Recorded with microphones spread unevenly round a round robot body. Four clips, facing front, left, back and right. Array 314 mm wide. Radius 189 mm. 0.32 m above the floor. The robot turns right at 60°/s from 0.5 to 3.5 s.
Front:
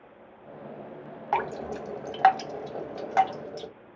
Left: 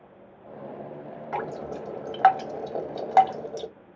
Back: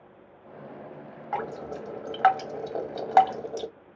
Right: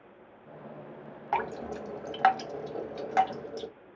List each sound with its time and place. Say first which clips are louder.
1.3 s dripping: right 1 dB, front 3 dB; 20° left, 0.8 m; by 3.7 s 150° left, 0.8 m